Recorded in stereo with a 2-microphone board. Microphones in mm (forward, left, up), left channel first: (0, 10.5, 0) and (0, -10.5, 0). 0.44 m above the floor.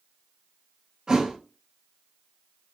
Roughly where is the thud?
Right.